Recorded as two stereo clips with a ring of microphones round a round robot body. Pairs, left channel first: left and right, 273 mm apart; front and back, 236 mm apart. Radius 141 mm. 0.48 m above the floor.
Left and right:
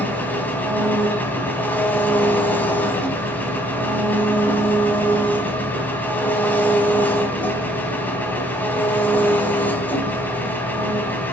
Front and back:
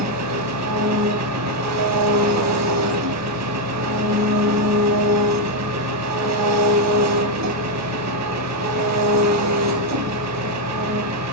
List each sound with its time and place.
0.0 s an engine running: 175° left, 4 m